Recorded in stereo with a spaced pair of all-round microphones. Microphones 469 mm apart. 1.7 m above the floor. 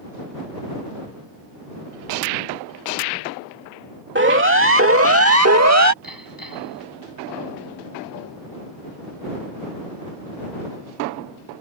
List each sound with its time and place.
4.2 s a siren: 25° right (ahead or behind); by 5.9 s 35° right (ahead or behind)
6.0 s hammering: 45° left (ahead or behind)